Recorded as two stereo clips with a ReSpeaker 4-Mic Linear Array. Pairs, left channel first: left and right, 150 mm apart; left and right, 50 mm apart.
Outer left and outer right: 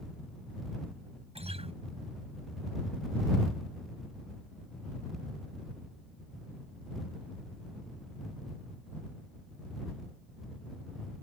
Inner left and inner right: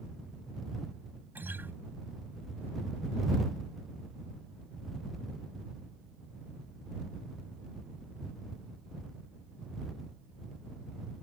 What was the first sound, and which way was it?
A guitar, 45° right (ahead or behind).